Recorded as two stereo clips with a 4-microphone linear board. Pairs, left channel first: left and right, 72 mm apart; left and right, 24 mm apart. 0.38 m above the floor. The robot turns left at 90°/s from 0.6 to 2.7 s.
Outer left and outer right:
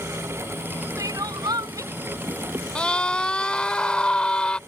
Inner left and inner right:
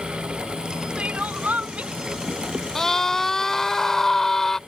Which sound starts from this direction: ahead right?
Crying, at 1.0 s.